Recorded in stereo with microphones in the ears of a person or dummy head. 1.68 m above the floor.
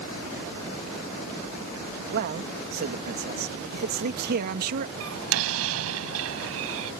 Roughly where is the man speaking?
Right.